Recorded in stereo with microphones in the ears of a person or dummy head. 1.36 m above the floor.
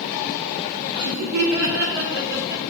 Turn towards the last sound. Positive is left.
turn(degrees=-55)  # may be behind; listen again after turning